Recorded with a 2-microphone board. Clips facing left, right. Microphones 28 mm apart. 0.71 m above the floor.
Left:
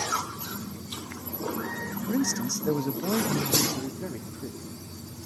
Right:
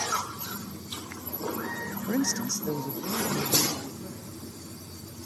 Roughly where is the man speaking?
Centre.